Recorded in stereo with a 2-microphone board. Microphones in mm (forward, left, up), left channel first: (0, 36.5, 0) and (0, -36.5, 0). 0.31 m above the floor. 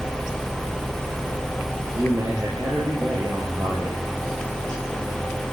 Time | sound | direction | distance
2.0 | a man speaking | 40° right (ahead or behind) | 7 m